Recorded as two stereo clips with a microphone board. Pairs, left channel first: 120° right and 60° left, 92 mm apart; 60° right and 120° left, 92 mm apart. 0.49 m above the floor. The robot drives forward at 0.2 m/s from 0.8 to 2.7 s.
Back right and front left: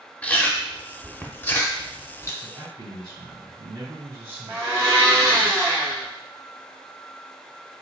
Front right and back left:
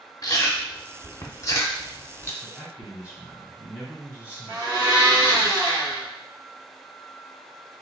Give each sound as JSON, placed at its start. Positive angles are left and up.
{"t": 0.2, "sound": "chewing", "azimuth_deg": -55, "distance_m": 0.7}
{"t": 2.4, "sound": "a man speaking", "azimuth_deg": 50, "distance_m": 1.8}
{"t": 4.5, "sound": "a blender", "azimuth_deg": 115, "distance_m": 1.8}